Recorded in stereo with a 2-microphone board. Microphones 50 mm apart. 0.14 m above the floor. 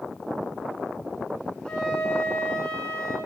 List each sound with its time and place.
1.6 s a flute: 10° left (ahead or behind), 1.8 m